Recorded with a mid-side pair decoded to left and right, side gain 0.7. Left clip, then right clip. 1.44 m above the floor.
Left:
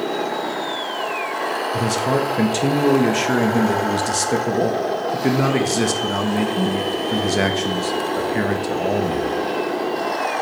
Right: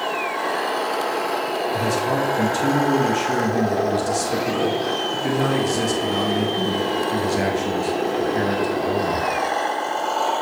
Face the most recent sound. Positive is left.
turn(degrees=30)